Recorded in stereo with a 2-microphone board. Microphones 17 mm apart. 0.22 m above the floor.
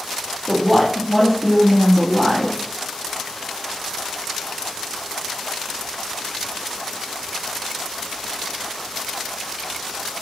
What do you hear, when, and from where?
0.5 s a woman speaking: 5° right (ahead or behind), 4 m